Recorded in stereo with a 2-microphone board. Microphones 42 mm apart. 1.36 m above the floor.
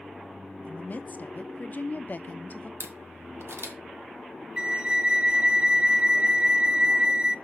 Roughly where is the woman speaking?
Left.